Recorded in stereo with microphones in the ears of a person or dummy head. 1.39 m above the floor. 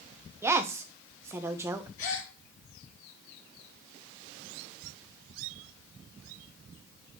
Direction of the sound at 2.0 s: 70° left (ahead or behind).